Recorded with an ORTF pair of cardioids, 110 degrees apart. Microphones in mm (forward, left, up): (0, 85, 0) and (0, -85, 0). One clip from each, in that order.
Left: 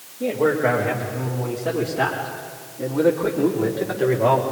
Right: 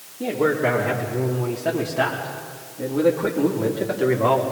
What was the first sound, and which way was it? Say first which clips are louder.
A man speaking: left 1 dB; 40° right.